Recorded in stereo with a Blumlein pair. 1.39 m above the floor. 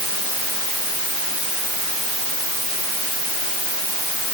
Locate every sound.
Only background noise.